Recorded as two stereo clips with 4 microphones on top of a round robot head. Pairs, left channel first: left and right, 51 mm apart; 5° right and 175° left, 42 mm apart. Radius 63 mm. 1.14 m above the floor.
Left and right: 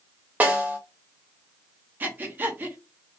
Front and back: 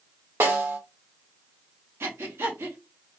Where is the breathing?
145° right, 1.0 m.